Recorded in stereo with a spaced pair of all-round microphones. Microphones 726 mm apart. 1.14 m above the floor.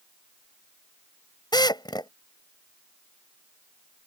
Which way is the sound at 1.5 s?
5° left (ahead or behind).